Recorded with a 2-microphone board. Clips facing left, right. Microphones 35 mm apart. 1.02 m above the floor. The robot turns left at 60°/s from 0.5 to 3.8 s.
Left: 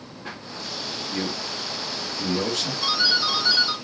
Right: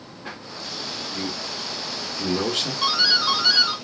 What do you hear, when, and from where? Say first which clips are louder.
1.1 s a man speaking: left 3 dB; 55° left (ahead or behind), 1.8 m; by 2.7 s 40° right (ahead or behind), 1.8 m
2.8 s a doorbell: right 2 dB; 50° right, 2 m; by 3.8 s 110° right, 2 m